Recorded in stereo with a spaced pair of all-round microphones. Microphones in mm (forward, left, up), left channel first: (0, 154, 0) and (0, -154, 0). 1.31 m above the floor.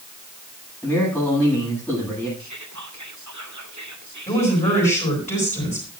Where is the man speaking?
5° left (ahead or behind), 9.5 m.